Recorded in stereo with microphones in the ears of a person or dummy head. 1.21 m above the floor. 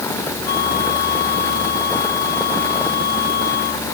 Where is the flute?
55° left (ahead or behind).